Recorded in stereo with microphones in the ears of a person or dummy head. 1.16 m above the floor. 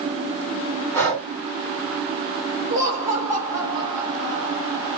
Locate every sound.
0.9 s breathing: 5° left (ahead or behind), 2 m
2.7 s laughter: 20° right (ahead or behind), 1.6 m